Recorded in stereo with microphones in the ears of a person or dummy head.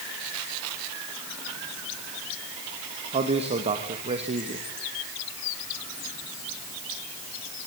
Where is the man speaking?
30° right (ahead or behind), 2 m.